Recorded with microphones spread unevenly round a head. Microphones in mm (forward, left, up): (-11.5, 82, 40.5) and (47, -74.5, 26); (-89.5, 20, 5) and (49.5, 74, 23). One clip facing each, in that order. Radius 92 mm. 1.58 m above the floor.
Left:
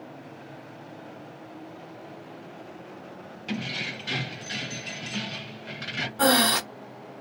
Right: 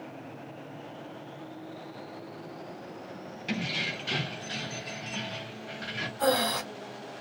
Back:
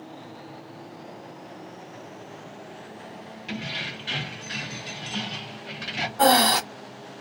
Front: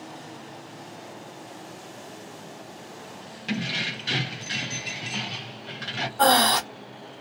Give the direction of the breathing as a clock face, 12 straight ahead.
8 o'clock.